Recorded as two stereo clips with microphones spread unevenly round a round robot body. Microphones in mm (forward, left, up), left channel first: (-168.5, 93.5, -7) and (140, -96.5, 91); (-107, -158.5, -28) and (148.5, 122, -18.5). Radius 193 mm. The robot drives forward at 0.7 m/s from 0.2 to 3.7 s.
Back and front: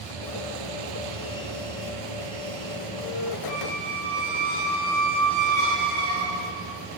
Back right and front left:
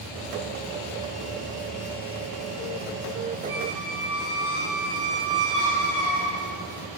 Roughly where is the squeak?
Right.